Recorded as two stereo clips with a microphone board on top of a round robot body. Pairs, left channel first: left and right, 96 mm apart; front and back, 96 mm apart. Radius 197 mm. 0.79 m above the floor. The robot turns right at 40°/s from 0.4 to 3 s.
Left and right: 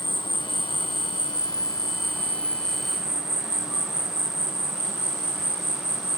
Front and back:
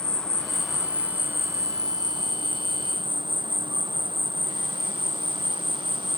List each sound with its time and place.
0.0 s an insect: 80° left; by 6.2 s 175° right